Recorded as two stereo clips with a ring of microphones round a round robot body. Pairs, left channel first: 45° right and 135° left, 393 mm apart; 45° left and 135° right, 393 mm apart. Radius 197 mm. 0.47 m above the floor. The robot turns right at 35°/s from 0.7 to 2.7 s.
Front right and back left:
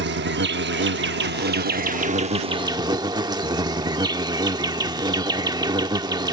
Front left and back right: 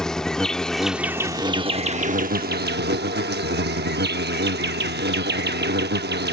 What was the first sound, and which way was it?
An insect, 130° left.